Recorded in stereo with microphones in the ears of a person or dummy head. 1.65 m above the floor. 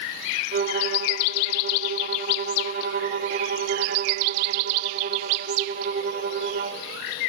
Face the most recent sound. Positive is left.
turn(degrees=-45)  # may be behind; listen again after turning